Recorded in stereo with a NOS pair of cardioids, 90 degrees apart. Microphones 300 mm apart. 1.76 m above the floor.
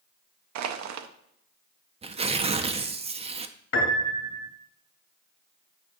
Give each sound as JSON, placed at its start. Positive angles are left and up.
{"t": 0.6, "sound": "crushing", "azimuth_deg": -70, "distance_m": 0.7}
{"t": 2.0, "sound": "tearing paper", "azimuth_deg": -20, "distance_m": 0.5}
{"t": 3.7, "sound": "a piano", "azimuth_deg": 50, "distance_m": 2.5}